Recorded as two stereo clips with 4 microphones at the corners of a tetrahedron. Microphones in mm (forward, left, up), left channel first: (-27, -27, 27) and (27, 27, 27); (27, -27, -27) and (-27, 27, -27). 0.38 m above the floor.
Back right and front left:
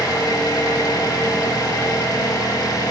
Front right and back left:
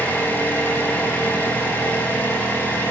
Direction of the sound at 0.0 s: 105° right.